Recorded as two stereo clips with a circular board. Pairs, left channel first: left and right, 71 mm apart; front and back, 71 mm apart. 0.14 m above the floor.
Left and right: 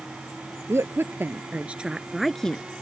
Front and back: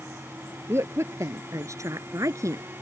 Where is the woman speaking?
135° right; by 2.6 s 160° left.